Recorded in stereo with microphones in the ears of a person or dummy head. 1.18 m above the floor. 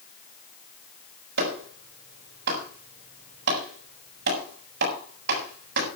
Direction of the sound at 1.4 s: 65° right (ahead or behind).